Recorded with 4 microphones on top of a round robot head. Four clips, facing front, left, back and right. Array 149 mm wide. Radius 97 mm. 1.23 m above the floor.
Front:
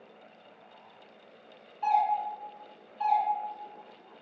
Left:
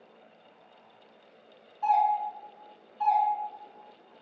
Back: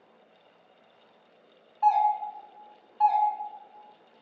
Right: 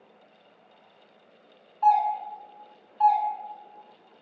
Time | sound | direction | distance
1.8 | a doorbell | 145° right | 1.5 m